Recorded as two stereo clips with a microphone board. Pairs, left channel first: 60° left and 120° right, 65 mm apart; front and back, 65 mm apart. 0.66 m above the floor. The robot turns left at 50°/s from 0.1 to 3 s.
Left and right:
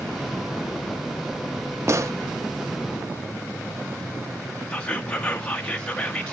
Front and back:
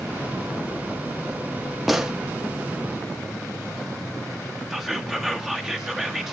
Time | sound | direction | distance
1.9 | a gunshot | 90° right | 0.6 m
4.7 | whispering | 105° left | 0.9 m